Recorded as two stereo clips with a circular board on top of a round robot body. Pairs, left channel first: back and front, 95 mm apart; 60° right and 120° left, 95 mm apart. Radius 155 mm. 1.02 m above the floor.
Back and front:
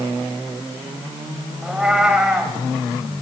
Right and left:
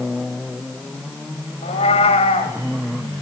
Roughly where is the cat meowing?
Right.